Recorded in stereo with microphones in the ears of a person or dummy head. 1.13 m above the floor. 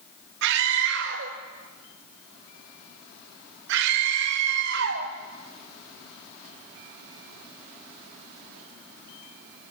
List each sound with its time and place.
0.4 s a scream: 65° right (ahead or behind), 1.2 m